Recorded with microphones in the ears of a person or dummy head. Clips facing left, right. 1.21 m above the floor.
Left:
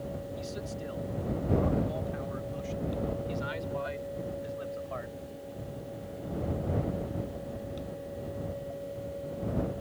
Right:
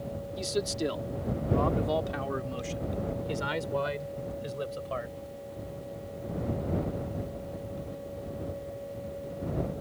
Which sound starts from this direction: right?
A man speaking, at 0.4 s.